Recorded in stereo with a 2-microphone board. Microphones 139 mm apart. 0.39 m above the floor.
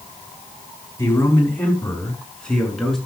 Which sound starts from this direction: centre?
A man speaking, at 1.0 s.